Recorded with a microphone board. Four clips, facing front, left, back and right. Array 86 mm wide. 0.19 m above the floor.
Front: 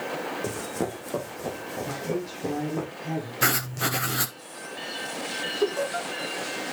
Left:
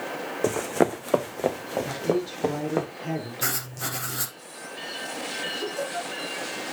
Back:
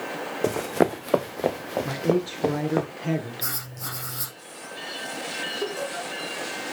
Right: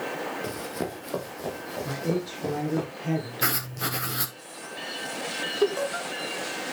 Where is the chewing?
I don't hear chewing.